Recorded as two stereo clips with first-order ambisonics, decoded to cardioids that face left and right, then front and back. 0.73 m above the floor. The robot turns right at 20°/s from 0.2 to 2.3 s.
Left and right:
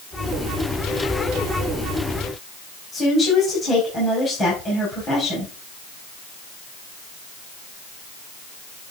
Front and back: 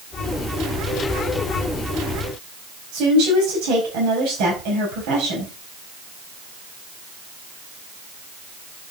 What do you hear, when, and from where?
2.9 s a woman speaking: 160° left, 5.5 m